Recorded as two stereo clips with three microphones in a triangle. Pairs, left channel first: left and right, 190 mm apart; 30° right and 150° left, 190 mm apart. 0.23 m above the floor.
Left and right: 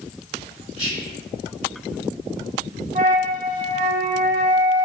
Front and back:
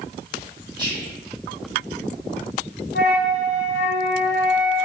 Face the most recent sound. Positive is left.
turn(degrees=-50)